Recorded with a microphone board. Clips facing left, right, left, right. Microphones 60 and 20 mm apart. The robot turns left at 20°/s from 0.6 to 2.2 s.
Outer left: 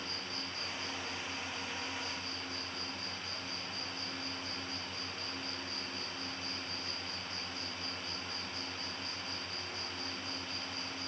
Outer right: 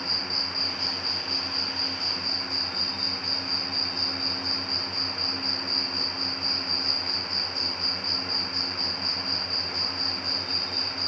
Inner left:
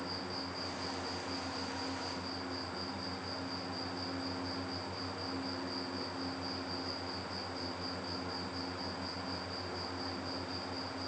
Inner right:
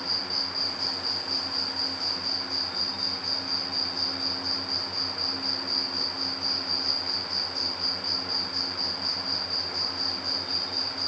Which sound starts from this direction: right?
An insect, at 0.0 s.